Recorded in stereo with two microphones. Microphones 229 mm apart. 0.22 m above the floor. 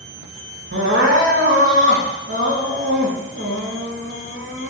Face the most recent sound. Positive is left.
turn(degrees=-60)  # may be behind; listen again after turning